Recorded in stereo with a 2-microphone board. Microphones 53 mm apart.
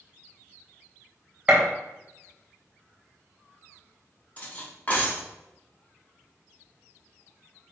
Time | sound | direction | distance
1.5 | a gunshot | 20° right (ahead or behind) | 0.9 m
4.4 | cutlery clinking | 30° left (ahead or behind) | 0.7 m